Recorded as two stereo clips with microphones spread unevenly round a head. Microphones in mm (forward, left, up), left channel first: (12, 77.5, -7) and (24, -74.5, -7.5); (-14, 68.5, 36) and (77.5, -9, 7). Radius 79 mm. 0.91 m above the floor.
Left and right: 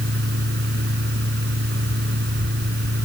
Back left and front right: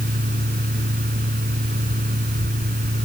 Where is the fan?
70° right.